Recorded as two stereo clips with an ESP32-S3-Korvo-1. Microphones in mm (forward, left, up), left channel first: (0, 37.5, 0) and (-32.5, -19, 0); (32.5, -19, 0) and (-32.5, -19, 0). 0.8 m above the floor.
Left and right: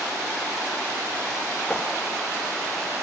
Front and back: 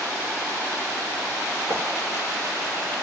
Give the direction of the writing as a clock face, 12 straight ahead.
7 o'clock.